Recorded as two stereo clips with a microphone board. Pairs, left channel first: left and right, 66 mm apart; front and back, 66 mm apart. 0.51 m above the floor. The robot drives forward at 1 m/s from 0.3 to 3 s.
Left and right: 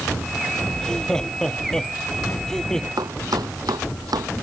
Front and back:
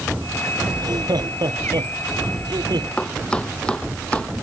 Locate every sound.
0.7 s laughter: 170° left
3.0 s chopping: 75° right